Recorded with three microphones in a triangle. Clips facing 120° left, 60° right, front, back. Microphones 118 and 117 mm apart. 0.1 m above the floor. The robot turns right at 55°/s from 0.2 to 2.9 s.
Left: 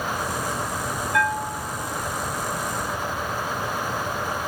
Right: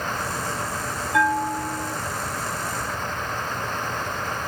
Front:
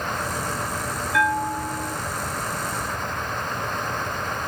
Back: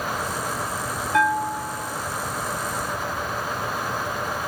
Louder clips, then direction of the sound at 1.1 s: Right 4 dB, back 1 dB; 120° right.